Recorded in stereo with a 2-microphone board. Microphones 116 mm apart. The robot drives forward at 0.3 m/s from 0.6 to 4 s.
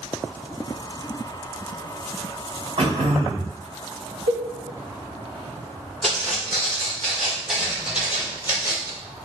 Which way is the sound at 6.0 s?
10° left (ahead or behind).